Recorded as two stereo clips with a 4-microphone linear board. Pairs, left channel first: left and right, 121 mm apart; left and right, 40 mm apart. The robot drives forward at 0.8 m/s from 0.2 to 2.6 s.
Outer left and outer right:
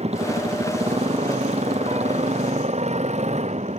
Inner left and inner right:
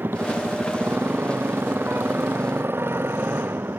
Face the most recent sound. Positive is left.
turn(degrees=-70)  # may be behind; listen again after turning